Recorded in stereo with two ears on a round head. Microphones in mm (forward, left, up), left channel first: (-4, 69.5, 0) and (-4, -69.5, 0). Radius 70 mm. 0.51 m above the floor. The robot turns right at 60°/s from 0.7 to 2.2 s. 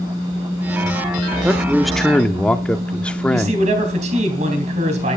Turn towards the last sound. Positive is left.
turn(degrees=-50)  # may be behind; listen again after turning